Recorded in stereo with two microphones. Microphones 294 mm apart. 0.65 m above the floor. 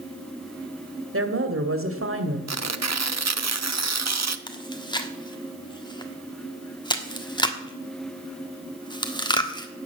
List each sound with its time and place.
1.1 s a woman speaking: 45° right (ahead or behind), 2.0 m
2.5 s tearing paper: 60° right (ahead or behind), 0.7 m
4.5 s chewing: 15° left (ahead or behind), 1.3 m